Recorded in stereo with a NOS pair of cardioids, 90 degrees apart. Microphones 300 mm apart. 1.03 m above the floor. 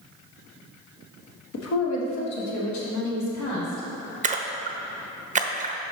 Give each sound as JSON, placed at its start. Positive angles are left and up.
{"t": 1.5, "sound": "a woman speaking", "azimuth_deg": 55, "distance_m": 1.1}
{"t": 4.2, "sound": "a splash", "azimuth_deg": -25, "distance_m": 0.6}